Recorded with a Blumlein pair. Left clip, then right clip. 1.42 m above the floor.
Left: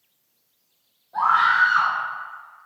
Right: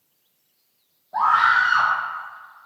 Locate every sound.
1.1 s a scream: 35° right, 1.0 m